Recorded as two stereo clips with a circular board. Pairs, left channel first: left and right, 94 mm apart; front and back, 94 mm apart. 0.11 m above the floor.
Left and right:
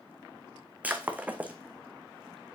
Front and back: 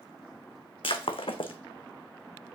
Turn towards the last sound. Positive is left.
turn(degrees=-15)